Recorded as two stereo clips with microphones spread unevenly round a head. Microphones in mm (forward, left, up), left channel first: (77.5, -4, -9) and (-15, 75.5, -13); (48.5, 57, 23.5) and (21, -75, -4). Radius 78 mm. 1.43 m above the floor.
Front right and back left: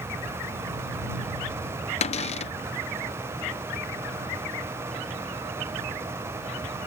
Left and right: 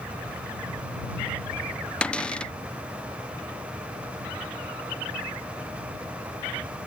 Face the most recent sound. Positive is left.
turn(degrees=-10)